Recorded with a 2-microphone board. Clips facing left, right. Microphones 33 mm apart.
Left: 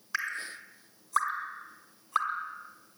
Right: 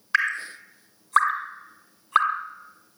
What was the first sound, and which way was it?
Dripping, 55° right (ahead or behind).